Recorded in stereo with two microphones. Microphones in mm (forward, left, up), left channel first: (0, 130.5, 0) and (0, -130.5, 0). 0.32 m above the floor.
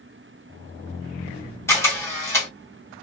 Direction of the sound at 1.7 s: 10° left (ahead or behind).